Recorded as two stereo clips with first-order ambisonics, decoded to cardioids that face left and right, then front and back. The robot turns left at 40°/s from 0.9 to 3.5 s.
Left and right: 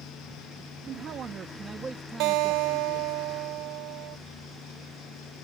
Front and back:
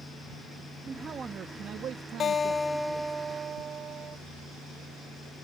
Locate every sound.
0.9 s a man speaking: 115° right; by 3.2 s 150° left
2.2 s a guitar: 65° right; by 4.2 s 120° right